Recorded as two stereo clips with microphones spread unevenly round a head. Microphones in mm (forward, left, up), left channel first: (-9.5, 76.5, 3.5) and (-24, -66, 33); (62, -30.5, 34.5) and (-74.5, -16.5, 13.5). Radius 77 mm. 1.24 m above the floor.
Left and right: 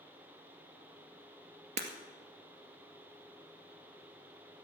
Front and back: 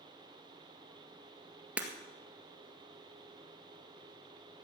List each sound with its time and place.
1.8 s breaking glass: 100° right, 1.8 m